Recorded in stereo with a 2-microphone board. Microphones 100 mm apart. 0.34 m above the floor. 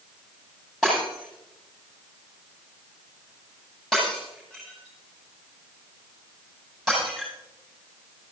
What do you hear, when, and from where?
0.8 s breaking glass: 5° left (ahead or behind), 9 m